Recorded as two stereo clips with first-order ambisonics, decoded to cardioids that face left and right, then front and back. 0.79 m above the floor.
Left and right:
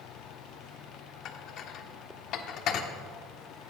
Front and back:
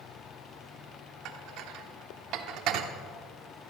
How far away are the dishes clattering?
About 1.2 m.